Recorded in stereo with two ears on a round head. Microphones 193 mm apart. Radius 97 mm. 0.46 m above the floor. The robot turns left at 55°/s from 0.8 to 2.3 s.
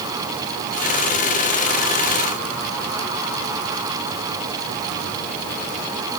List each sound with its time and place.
Only background noise.